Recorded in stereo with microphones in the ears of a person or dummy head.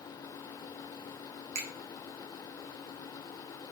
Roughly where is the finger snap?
Right.